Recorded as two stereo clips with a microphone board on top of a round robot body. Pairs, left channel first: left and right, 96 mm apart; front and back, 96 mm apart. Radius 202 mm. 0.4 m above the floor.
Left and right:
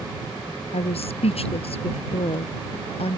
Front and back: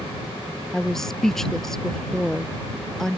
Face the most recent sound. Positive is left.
turn(degrees=85)